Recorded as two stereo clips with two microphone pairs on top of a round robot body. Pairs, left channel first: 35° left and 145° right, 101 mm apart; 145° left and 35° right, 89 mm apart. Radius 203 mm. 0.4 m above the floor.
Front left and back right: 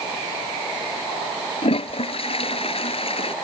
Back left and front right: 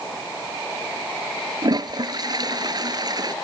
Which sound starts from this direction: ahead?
A toilet flushing, at 1.6 s.